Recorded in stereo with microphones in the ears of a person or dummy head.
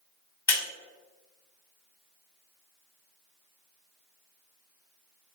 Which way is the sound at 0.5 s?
20° left (ahead or behind).